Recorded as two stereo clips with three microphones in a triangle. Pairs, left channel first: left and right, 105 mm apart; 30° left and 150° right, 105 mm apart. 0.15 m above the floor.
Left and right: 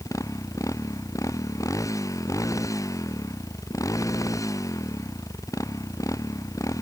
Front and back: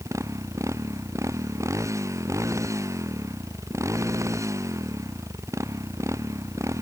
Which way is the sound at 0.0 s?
150° left.